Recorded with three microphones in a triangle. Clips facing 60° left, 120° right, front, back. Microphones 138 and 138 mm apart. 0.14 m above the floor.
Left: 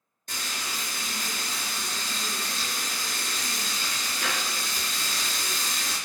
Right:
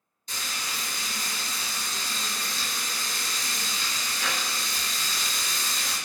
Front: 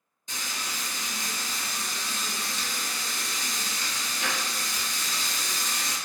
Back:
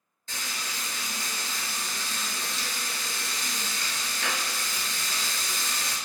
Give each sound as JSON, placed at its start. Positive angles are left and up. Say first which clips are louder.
{"t": 0.3, "sound": "frying", "louder": "left 1 dB, front 1 dB", "azimuth_deg": 70, "distance_m": 1.2}